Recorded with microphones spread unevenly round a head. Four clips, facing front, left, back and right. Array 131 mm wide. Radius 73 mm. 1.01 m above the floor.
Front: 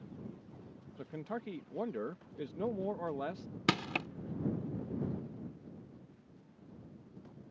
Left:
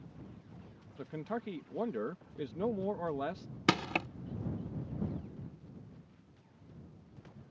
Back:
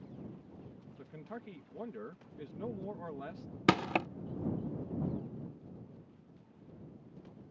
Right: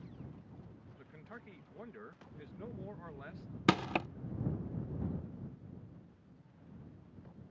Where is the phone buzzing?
I don't hear a phone buzzing.